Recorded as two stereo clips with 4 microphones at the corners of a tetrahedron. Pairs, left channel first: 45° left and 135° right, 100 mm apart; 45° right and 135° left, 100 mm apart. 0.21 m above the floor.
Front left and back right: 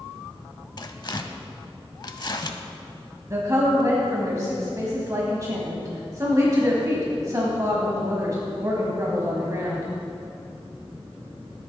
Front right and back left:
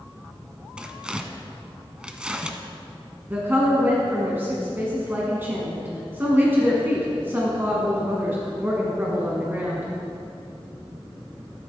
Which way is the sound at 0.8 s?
60° left.